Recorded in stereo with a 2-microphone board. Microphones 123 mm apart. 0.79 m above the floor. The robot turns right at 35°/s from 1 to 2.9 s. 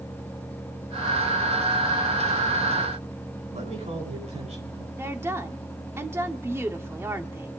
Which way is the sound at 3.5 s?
60° right (ahead or behind).